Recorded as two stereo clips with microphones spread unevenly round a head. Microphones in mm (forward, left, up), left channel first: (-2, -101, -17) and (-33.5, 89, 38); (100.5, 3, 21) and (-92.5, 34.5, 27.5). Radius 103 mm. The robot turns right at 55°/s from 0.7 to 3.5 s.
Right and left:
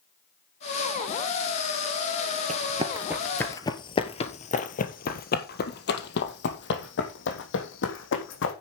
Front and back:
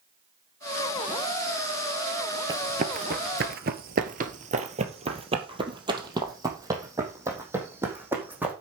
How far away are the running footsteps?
About 1.4 m.